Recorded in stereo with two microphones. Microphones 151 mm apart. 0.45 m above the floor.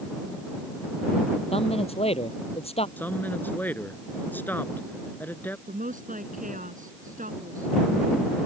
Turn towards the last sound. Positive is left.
turn(degrees=-60)  # may be behind; listen again after turning